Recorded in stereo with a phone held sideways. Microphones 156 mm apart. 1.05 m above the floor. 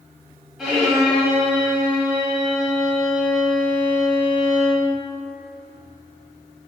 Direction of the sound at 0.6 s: Centre (ahead or behind).